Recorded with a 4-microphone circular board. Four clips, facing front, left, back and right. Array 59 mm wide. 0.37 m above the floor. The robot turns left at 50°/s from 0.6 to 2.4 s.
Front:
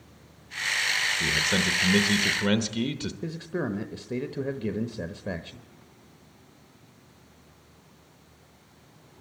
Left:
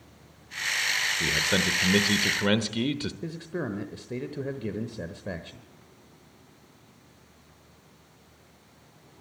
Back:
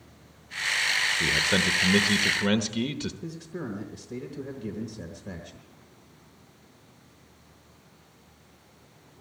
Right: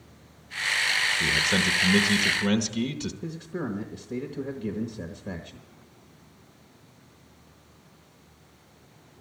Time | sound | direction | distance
1.2 | a man speaking | 155° left | 0.8 m
3.2 | a man speaking | 20° left | 1.0 m